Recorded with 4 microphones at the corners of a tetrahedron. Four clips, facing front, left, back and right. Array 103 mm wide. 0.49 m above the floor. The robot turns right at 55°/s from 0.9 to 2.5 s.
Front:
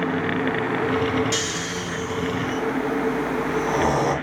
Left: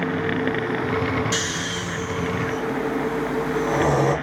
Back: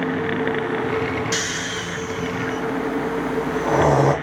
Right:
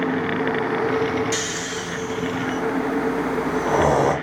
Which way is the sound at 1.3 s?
155° left.